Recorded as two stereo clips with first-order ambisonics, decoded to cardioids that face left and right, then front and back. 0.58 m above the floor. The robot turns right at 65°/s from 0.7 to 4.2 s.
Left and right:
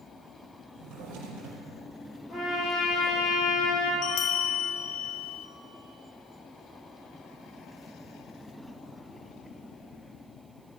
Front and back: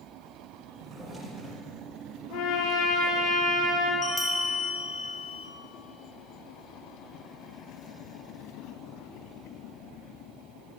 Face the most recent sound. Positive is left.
turn(degrees=75)